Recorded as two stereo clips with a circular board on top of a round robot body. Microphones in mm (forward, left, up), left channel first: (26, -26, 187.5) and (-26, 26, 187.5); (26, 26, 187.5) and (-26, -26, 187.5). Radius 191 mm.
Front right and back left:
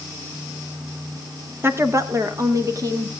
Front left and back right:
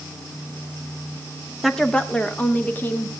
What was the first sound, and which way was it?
A woman speaking, 135° left.